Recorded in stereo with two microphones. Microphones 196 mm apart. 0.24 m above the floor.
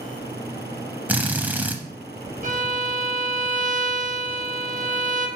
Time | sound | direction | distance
1.1 | a drill | 10° right (ahead or behind) | 0.6 m
2.4 | a violin | 45° right (ahead or behind) | 1.0 m